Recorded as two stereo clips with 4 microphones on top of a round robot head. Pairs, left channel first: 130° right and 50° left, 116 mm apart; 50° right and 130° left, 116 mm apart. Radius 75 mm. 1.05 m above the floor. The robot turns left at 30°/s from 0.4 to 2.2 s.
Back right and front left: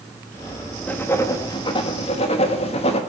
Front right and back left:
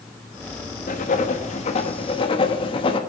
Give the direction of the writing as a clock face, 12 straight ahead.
2 o'clock.